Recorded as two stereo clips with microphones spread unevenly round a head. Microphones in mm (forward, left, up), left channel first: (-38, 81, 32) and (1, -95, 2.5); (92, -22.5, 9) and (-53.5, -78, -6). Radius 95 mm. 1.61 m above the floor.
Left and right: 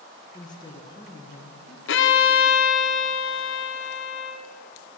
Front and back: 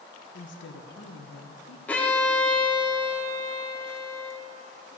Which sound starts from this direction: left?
A violin, at 1.9 s.